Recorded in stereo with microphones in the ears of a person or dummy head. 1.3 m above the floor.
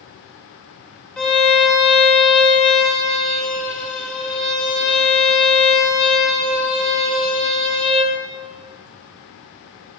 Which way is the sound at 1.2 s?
10° left (ahead or behind).